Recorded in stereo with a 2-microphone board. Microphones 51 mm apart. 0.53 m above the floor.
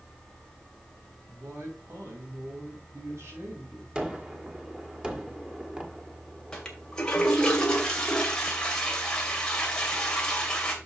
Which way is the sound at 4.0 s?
15° right (ahead or behind).